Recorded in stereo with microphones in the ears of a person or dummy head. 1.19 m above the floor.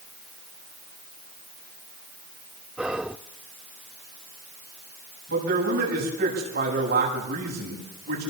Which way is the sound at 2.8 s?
5° right (ahead or behind).